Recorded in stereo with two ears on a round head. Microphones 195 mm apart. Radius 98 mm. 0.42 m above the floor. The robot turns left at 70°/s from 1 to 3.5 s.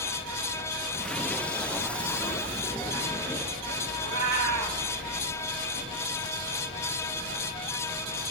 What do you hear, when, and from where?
4.0 s a cat meowing: 75° right (ahead or behind), 1.5 m